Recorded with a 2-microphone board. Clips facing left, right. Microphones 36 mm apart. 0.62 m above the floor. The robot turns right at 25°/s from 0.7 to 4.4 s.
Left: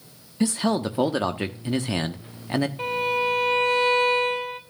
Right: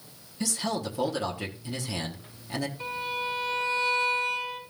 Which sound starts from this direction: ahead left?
A man speaking, at 0.4 s.